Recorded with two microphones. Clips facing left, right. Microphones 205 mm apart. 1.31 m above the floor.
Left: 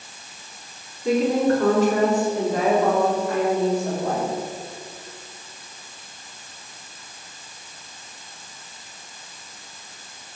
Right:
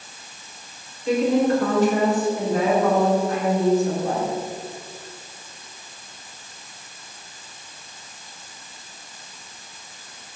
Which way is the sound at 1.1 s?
85° left.